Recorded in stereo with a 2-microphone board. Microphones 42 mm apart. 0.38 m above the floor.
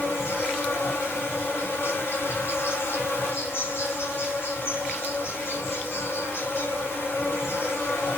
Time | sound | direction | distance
0.0 | an insect | 80° left | 1.0 m